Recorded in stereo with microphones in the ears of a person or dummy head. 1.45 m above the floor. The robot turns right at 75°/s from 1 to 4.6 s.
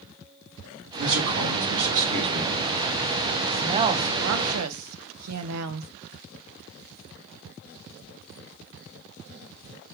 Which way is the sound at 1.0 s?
120° right.